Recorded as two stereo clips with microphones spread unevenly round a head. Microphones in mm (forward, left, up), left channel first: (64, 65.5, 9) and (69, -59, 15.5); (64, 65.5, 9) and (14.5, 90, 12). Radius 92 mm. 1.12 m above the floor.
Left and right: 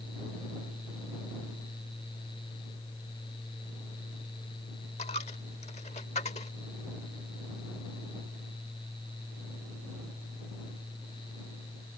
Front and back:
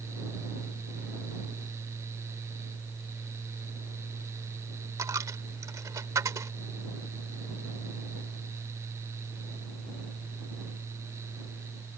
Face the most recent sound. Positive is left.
turn(degrees=150)